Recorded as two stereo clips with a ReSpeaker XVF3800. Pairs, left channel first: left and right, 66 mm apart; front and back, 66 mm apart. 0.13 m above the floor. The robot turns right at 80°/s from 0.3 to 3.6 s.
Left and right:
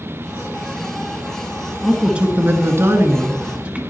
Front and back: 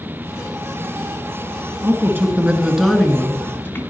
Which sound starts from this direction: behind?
A man speaking, at 1.8 s.